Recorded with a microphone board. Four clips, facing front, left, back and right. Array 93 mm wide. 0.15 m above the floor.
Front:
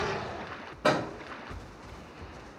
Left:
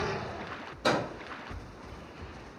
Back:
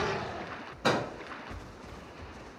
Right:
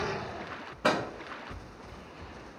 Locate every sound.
0.8 s a microwave: 80° right, 1.1 m